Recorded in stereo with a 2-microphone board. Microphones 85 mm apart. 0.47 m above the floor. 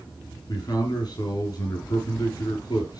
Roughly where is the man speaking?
Left.